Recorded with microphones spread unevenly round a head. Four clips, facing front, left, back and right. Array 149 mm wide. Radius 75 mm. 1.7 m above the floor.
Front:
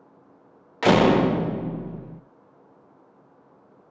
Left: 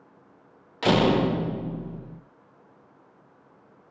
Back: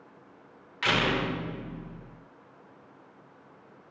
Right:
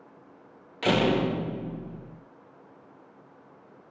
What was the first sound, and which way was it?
A door slam, 25° left.